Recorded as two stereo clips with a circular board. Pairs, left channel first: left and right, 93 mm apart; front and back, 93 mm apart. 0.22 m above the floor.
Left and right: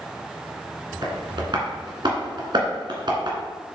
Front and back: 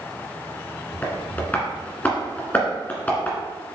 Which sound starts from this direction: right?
Tapping, at 1.0 s.